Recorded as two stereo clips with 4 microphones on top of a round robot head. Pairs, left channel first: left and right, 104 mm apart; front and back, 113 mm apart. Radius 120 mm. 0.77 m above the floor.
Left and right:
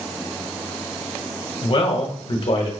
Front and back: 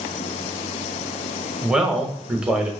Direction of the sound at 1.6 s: 95° left.